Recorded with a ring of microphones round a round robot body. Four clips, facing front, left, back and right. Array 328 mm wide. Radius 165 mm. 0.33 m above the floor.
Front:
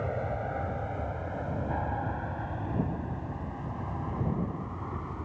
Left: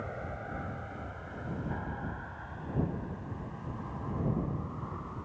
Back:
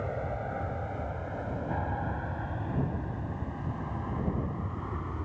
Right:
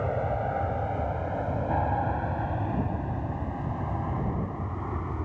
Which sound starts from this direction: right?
An aircraft, at 0.0 s.